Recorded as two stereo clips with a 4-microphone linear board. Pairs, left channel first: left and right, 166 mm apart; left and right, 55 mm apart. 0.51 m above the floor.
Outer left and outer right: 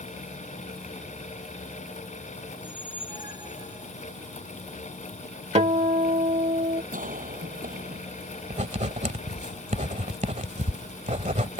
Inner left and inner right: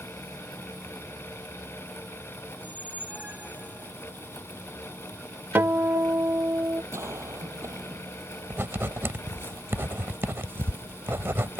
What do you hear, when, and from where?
2.5 s a squeak: 25° right (ahead or behind)
5.5 s a guitar: 40° right (ahead or behind)
6.9 s a cough: 50° right (ahead or behind)
8.5 s writing: 45° right (ahead or behind)